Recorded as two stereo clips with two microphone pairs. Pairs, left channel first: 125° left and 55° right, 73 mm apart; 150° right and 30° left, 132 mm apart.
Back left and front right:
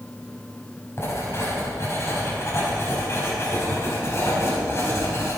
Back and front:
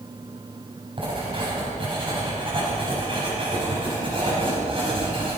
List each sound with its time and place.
1.0 s writing: 75° left, 4.5 m